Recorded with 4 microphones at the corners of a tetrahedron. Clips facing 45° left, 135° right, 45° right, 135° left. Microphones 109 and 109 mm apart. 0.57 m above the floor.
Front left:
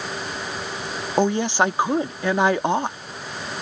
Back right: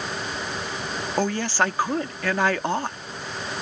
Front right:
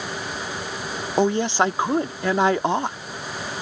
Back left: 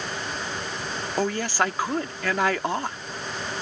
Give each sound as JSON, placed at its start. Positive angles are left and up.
{"t": 1.2, "sound": "a woman speaking", "azimuth_deg": -10}